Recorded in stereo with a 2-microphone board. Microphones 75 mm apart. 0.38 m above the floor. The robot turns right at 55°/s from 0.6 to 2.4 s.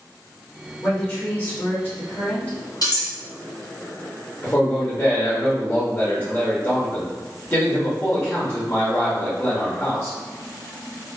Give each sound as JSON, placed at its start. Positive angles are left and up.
{"t": 0.8, "sound": "a woman speaking", "side_deg": 20, "distance_m": 1.2}
{"t": 2.8, "sound": "cutlery clinking", "side_deg": 55, "distance_m": 1.4}
{"t": 4.4, "sound": "a man speaking", "side_deg": 25, "distance_m": 0.8}